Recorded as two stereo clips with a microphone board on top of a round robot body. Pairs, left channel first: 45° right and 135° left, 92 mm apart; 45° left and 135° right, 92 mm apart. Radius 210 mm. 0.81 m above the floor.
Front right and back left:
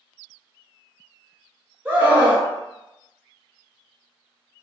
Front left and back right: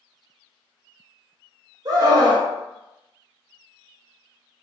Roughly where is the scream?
Behind.